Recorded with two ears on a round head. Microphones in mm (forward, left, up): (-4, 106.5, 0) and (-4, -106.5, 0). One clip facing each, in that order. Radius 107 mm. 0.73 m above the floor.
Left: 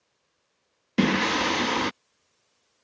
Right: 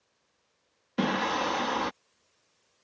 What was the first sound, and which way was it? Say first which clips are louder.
Singing: left 6 dB; 35° left (ahead or behind).